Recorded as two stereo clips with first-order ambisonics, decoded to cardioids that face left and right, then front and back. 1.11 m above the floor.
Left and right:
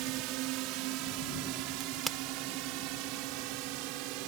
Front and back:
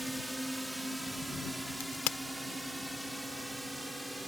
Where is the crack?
5° right.